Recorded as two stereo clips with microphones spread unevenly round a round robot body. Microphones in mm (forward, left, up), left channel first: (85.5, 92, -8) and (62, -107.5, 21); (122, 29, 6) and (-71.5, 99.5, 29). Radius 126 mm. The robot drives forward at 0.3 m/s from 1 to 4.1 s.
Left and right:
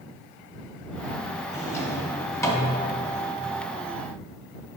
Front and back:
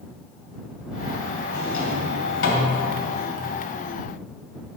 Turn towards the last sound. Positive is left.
turn(degrees=10)